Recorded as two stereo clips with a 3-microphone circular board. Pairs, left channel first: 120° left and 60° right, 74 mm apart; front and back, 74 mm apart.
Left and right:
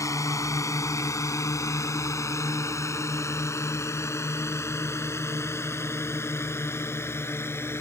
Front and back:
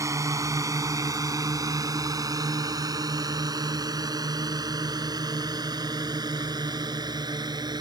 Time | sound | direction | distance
0.0 | a drone | 150° left | ?